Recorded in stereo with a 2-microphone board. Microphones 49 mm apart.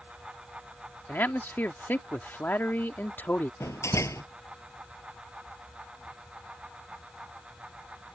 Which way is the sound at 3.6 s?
85° left.